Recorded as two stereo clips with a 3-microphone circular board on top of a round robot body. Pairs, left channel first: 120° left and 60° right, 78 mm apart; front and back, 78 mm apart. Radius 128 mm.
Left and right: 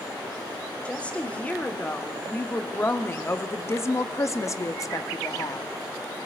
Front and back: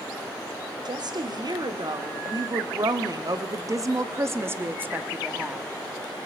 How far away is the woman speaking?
About 2.5 m.